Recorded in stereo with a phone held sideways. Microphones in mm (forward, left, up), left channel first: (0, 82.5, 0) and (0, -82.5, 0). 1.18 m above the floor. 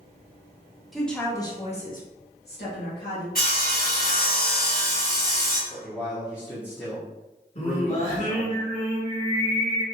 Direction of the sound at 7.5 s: 45° left (ahead or behind).